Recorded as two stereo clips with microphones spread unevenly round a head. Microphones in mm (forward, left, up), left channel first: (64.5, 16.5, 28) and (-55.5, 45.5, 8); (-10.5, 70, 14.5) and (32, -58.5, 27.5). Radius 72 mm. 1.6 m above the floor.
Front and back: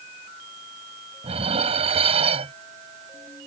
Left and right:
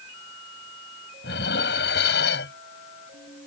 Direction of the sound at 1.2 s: 125° left.